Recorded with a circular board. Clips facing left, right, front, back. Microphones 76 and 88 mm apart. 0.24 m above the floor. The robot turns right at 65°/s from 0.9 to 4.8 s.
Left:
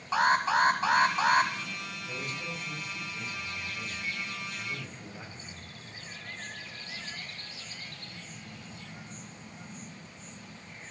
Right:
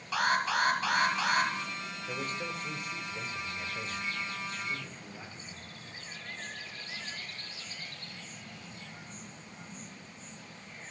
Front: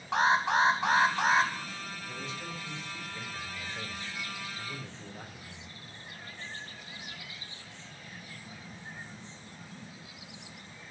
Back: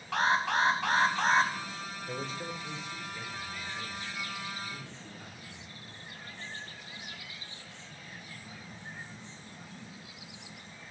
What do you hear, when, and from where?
0.1 s an alarm: 55° left, 1.4 m; by 1.5 s 95° left, 1.4 m
2.1 s a man speaking: 165° right, 4.5 m; by 5.7 s 10° left, 4.5 m